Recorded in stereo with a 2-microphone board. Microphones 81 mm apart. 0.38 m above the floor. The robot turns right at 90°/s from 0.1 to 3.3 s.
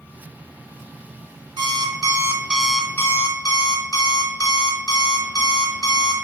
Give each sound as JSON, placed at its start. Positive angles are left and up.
{"t": 1.6, "sound": "an alarm clock", "azimuth_deg": -100, "distance_m": 0.7}